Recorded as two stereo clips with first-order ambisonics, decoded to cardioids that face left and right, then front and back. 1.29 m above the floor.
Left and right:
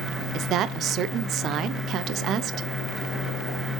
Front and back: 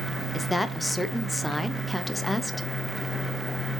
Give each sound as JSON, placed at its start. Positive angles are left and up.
{"t": 0.3, "sound": "a woman speaking", "azimuth_deg": -80, "distance_m": 0.5}